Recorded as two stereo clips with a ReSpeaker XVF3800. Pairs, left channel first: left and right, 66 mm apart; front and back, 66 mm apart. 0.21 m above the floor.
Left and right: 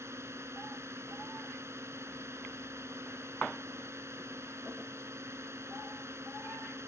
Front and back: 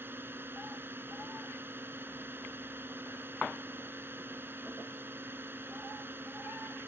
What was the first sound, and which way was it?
A drone, 130° right.